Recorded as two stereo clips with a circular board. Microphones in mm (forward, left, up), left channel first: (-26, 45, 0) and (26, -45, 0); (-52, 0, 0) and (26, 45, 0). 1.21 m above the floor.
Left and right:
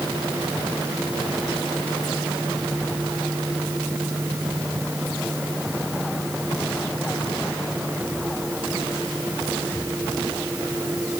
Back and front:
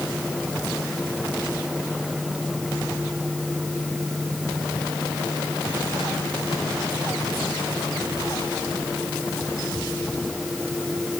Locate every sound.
Only background noise.